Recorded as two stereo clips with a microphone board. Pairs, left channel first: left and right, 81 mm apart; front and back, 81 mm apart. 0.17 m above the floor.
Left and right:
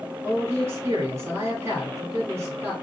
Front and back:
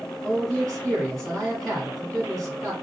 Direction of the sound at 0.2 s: 80° right.